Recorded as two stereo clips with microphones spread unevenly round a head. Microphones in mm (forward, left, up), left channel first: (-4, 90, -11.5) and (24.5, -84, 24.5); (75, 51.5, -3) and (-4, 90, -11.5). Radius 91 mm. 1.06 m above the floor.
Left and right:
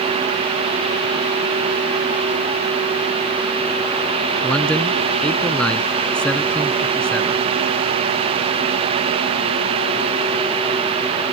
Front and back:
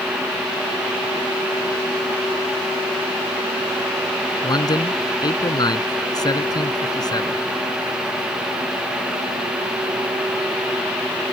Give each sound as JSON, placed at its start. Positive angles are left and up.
{"t": 4.4, "sound": "a man speaking", "azimuth_deg": 15}